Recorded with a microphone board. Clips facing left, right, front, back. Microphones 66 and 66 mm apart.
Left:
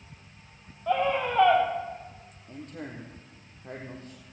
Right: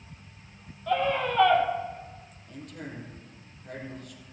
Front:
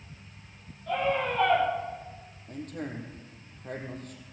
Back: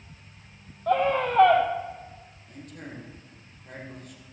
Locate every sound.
0.9 s a scream: 155° left, 3 m
2.5 s a man speaking: 35° left, 2.5 m